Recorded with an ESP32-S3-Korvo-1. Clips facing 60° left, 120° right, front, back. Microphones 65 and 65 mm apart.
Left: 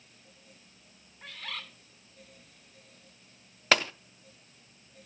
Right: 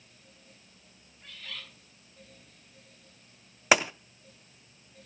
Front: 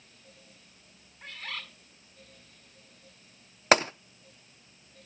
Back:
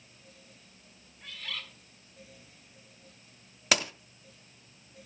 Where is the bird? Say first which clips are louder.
Left 4 dB, front 2 dB; 50° left, 2 m.